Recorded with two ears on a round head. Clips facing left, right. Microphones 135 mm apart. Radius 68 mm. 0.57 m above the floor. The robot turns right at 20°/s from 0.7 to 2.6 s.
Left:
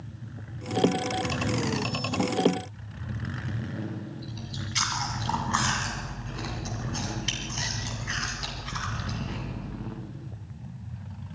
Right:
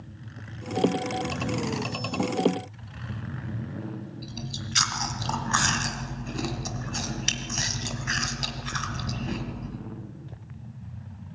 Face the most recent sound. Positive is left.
turn(degrees=-65)  # may be behind; listen again after turning